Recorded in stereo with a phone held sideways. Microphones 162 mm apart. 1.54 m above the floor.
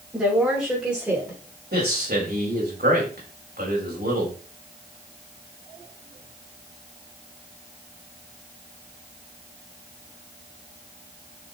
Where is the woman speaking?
5° right (ahead or behind), 5.5 m; by 1.4 s 10° right (ahead or behind), 6 m.